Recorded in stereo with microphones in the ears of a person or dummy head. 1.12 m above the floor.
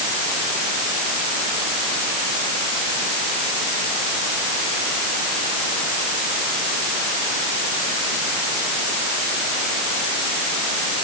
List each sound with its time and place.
Only background noise.